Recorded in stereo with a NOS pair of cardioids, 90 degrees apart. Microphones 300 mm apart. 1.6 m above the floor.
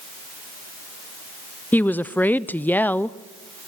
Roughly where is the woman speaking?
Ahead.